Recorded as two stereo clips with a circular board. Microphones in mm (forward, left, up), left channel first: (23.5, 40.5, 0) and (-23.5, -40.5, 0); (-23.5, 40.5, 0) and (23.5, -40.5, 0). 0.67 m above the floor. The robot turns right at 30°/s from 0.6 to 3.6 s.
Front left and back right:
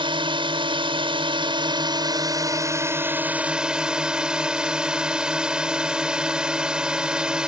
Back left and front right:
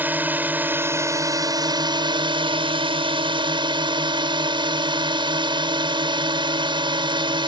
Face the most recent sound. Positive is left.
turn(degrees=-40)